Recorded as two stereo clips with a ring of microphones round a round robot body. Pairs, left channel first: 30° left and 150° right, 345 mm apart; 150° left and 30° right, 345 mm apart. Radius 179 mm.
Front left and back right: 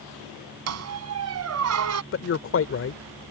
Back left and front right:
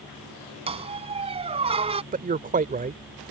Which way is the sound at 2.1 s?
20° left.